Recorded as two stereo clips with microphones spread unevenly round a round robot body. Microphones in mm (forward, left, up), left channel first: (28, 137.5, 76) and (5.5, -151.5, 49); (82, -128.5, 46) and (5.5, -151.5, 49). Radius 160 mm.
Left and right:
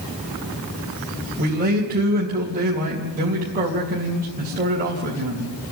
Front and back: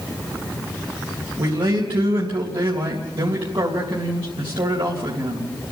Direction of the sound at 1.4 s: 155° right.